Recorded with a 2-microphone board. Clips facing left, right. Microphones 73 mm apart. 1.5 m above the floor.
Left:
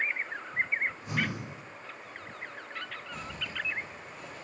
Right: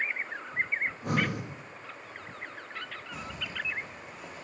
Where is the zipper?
5° right (ahead or behind), 3 m.